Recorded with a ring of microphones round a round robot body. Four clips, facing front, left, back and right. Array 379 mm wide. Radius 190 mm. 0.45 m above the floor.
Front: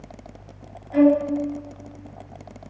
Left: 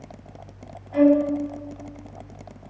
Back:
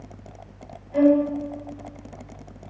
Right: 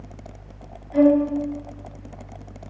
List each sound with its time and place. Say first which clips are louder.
0.9 s a violin: right 1 dB, front 1 dB; 5° left, 3 m